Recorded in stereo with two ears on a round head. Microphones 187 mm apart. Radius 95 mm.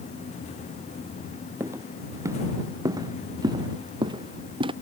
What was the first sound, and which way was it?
Footsteps, 15° right (ahead or behind).